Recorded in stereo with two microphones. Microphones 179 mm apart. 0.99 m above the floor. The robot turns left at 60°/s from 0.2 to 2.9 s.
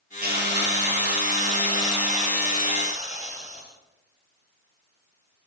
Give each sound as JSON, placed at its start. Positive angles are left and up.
{"t": 0.2, "sound": "a hiss", "azimuth_deg": -60, "distance_m": 4.0}